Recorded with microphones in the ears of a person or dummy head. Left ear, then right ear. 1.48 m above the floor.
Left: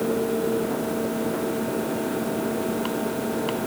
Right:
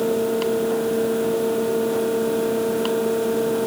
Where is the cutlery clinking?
I don't hear cutlery clinking.